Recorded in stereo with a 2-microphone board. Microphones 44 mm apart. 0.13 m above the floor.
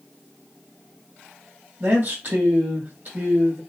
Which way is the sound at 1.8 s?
45° right (ahead or behind).